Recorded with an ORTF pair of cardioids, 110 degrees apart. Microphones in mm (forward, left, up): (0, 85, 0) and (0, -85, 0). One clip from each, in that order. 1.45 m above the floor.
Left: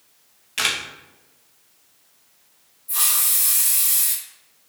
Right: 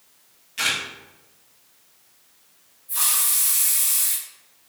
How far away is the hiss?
About 2.5 m.